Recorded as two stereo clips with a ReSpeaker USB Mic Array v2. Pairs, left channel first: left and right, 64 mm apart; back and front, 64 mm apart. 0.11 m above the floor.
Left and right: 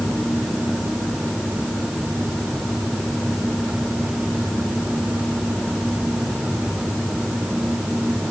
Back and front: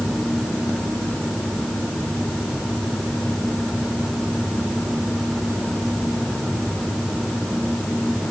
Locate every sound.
Only background noise.